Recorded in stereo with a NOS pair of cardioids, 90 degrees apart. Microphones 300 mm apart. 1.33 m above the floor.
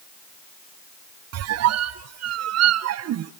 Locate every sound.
1.3 s a squeak: 55° right, 0.6 m